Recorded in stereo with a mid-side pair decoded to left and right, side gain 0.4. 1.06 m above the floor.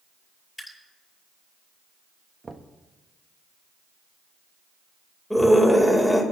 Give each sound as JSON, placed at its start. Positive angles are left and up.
{"t": 0.6, "sound": "dripping", "azimuth_deg": 10, "distance_m": 7.5}
{"t": 2.4, "sound": "knocking", "azimuth_deg": -35, "distance_m": 1.2}
{"t": 5.3, "sound": "a scream", "azimuth_deg": 5, "distance_m": 4.0}